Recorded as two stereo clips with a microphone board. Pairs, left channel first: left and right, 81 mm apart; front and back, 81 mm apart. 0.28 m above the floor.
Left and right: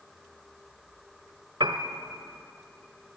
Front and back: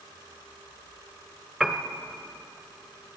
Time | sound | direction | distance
1.6 | a piano | 90° right | 1.4 m